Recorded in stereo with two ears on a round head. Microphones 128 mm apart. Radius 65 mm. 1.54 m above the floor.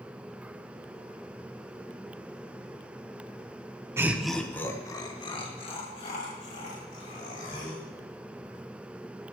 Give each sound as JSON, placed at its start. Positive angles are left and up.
{"t": 4.0, "sound": "laughter", "side_deg": -15, "distance_m": 0.9}